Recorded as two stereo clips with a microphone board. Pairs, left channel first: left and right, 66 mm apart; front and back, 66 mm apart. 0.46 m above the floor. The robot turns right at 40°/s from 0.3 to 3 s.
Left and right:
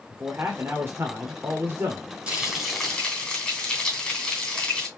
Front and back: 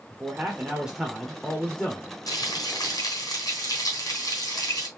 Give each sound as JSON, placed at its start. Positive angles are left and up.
{"t": 0.1, "sound": "a man speaking", "azimuth_deg": -130, "distance_m": 1.3}
{"t": 2.3, "sound": "frying", "azimuth_deg": -20, "distance_m": 3.5}